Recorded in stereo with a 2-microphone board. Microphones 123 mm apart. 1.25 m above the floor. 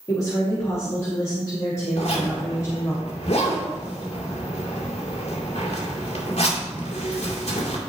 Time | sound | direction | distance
0.1 | a woman speaking | 30° left (ahead or behind) | 2 m
2.0 | a zipper | 70° left (ahead or behind) | 2.5 m